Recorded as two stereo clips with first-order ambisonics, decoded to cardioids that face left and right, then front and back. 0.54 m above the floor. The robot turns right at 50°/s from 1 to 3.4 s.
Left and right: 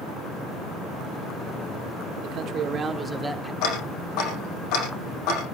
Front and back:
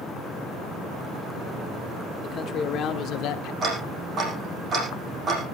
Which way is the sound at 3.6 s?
115° left.